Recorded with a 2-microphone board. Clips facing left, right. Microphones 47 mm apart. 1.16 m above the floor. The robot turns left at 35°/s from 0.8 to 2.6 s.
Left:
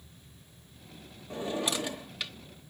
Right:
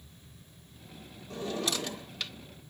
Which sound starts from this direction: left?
A drawer, at 1.3 s.